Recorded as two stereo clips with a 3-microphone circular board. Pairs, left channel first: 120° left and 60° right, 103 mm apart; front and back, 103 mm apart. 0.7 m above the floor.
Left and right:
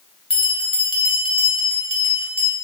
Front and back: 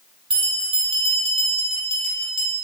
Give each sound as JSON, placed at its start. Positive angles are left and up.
{"t": 0.3, "sound": "a bell", "azimuth_deg": 150, "distance_m": 1.7}